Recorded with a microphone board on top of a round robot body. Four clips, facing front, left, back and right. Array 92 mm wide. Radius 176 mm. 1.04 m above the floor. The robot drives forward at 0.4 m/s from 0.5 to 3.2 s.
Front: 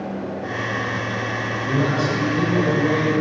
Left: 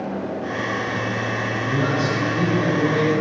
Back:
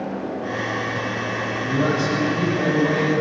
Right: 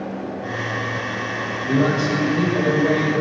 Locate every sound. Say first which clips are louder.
1.6 s a man speaking: right 4 dB, even; 65° right, 6 m; by 3.2 s 75° right, 5.5 m